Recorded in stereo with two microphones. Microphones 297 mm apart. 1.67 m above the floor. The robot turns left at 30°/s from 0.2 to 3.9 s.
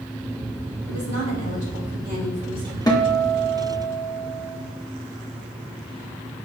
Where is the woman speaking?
110° right, 3.5 m; by 2.8 s 165° right, 3.5 m.